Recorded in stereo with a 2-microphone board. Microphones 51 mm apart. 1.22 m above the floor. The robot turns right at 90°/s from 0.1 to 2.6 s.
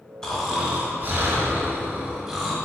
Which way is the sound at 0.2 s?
160° left.